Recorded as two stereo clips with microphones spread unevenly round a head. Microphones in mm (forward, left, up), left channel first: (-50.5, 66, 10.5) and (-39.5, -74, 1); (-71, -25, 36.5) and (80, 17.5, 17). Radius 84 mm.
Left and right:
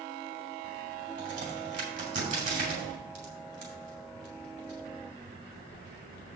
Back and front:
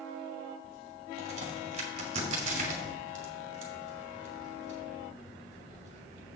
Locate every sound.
1.2 s a crack: 35° right, 2.5 m